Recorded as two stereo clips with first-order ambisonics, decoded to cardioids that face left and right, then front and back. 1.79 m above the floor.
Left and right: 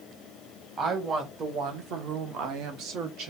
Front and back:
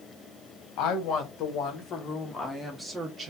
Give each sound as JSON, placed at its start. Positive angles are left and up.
{"t": 0.8, "sound": "a woman speaking", "azimuth_deg": -30, "distance_m": 1.6}